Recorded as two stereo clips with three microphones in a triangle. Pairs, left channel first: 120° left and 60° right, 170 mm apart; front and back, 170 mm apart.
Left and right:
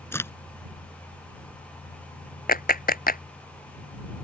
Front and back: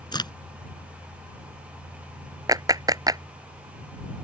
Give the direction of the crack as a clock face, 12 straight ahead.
10 o'clock.